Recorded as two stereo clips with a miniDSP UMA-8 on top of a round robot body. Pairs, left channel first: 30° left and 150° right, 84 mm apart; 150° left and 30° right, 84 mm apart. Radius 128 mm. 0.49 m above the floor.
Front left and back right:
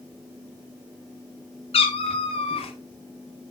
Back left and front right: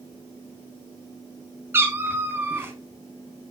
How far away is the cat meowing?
About 0.7 m.